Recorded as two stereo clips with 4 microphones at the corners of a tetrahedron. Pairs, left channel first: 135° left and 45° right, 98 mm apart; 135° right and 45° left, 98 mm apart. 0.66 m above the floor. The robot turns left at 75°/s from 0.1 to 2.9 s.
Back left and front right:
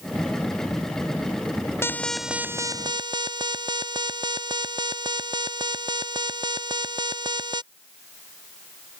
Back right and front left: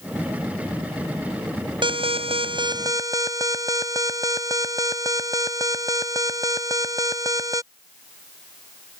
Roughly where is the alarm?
Left.